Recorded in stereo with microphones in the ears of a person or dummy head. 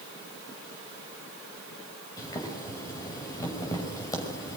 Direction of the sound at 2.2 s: 20° left (ahead or behind).